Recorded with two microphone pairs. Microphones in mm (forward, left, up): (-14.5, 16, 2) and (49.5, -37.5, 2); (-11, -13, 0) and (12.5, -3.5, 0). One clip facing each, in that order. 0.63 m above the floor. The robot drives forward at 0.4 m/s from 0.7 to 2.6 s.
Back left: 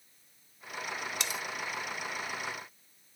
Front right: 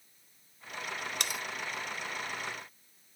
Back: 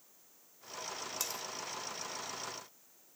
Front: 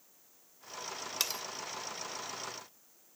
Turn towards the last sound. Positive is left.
turn(degrees=-90)